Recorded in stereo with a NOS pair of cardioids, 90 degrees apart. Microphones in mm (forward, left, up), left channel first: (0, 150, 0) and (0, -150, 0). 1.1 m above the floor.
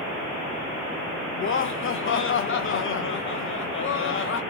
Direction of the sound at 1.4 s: 40° left.